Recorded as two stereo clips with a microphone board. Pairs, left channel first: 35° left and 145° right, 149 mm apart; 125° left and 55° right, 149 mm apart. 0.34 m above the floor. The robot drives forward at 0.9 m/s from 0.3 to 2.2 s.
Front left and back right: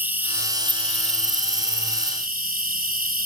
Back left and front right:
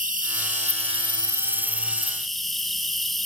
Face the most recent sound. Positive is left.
turn(degrees=-145)